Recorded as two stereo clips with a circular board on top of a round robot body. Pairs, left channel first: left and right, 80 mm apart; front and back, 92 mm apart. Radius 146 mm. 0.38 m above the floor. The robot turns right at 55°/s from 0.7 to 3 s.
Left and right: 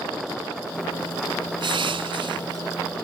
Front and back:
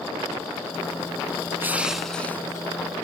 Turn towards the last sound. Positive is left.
turn(degrees=-35)